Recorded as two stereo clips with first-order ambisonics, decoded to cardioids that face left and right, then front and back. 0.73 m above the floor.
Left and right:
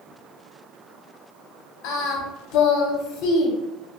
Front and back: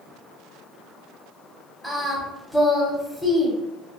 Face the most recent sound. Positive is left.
turn(degrees=90)